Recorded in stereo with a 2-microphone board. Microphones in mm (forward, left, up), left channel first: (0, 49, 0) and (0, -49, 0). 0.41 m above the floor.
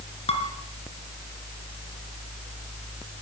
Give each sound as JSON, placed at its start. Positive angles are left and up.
{"t": 0.3, "sound": "dishes clattering", "side_deg": 80, "distance_m": 3.5}